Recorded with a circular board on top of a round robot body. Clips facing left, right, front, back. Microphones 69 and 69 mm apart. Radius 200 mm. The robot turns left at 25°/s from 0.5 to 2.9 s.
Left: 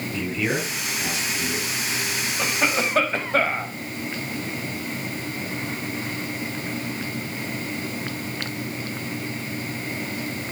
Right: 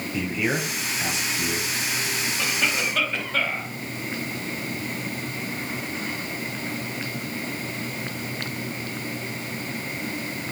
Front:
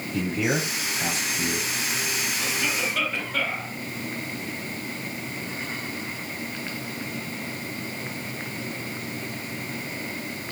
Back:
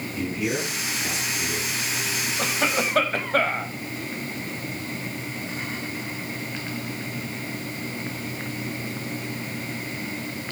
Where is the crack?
I don't hear a crack.